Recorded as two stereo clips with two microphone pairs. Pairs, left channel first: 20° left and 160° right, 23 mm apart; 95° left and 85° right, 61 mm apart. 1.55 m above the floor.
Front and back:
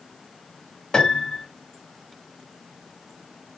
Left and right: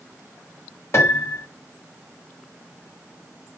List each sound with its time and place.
0.9 s a piano: 65° left, 1.5 m